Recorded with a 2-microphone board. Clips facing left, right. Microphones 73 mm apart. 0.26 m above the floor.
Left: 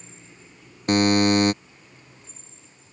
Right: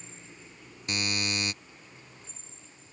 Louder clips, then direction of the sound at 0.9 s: Left 15 dB; 55° left (ahead or behind).